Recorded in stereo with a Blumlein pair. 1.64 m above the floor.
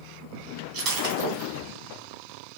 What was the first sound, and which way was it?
Breaking glass, 45° right.